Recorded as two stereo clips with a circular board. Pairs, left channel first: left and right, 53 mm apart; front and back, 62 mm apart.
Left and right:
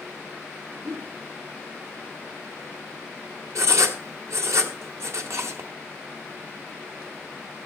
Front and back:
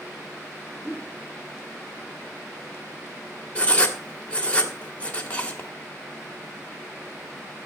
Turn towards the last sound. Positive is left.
turn(degrees=-65)